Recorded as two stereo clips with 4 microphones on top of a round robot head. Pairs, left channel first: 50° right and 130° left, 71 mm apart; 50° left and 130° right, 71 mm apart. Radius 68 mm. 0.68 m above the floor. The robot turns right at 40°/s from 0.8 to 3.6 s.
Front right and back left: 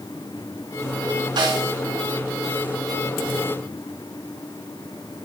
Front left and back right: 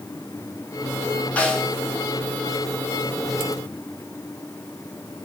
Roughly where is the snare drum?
Behind left.